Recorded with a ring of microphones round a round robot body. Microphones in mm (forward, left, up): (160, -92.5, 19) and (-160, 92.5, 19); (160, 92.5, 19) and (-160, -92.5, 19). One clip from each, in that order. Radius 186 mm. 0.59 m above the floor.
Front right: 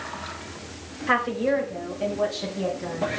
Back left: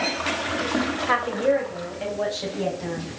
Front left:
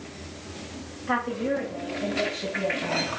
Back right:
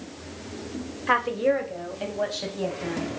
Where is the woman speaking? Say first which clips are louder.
Even, back right 5 dB; 115° right, 2.5 m; by 3.1 s 130° right, 4.5 m.